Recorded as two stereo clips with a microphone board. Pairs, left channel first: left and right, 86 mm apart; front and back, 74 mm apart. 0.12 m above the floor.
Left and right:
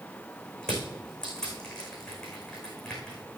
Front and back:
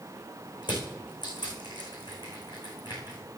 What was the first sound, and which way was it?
Crushing, 10° left.